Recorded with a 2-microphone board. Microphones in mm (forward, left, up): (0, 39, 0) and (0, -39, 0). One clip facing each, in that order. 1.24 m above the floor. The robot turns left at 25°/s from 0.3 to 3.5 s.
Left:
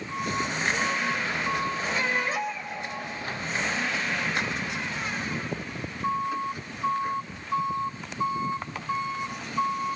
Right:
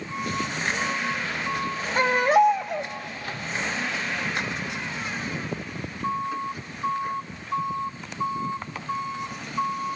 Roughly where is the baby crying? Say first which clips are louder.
Right 13 dB; right.